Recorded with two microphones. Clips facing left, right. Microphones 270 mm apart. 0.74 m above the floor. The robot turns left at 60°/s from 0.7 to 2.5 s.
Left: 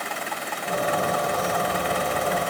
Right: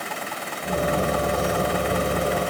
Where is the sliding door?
No sliding door in this recording.